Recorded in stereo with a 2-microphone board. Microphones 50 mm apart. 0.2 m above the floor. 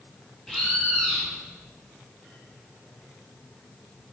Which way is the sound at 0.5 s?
10° left (ahead or behind).